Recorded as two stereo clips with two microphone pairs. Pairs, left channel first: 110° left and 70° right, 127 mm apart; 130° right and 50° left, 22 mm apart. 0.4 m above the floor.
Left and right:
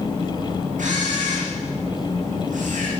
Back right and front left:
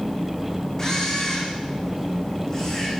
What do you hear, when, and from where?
0.8 s a camera shutter: 60° right, 8 m